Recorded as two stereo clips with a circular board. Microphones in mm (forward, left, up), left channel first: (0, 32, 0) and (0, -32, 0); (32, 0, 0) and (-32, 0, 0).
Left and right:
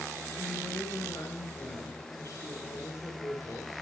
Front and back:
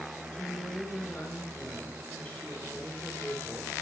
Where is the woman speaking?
60° left, 2.5 m.